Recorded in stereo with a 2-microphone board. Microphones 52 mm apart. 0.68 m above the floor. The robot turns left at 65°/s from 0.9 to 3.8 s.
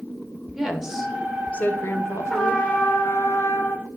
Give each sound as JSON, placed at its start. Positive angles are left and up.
{"t": 0.6, "sound": "a woman speaking", "azimuth_deg": -170, "distance_m": 1.2}
{"t": 2.3, "sound": "a trumpet", "azimuth_deg": 170, "distance_m": 1.4}